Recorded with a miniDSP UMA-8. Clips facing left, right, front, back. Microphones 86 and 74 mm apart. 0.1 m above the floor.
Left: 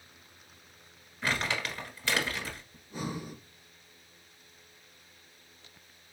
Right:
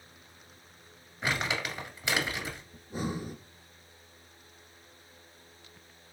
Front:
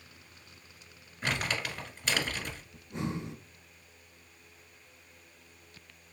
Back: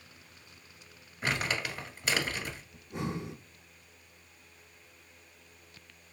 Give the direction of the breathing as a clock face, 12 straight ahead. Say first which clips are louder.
Right 3 dB, front 1 dB; 3 o'clock.